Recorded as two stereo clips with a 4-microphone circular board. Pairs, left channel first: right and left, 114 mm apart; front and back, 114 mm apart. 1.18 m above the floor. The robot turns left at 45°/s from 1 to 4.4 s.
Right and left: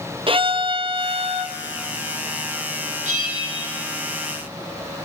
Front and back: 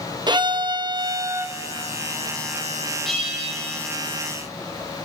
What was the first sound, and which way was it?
A violin, 130° left.